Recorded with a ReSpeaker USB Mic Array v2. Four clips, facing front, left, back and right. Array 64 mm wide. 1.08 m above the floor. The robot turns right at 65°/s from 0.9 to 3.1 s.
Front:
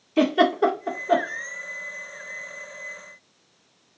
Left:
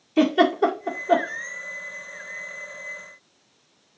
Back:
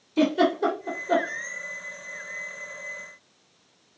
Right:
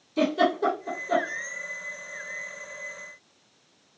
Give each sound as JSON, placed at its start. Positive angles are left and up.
{"t": 0.2, "sound": "a giggle", "azimuth_deg": 35, "distance_m": 1.9}